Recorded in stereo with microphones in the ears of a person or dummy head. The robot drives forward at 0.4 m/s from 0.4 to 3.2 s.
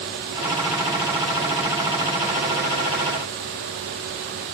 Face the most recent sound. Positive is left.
No sound to turn to.